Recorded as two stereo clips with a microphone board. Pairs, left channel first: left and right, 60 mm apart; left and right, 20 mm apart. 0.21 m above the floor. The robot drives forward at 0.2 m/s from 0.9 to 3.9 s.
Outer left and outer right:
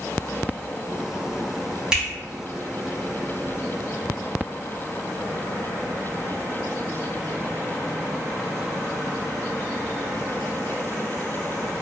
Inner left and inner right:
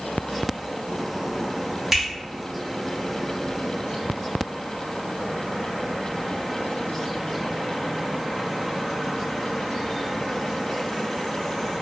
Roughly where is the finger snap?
Centre.